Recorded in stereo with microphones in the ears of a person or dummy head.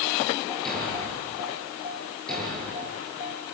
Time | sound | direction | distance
0.7 | a thud | 5° left (ahead or behind) | 9.5 m